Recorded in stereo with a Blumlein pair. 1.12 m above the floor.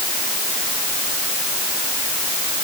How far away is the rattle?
No rattle in this recording.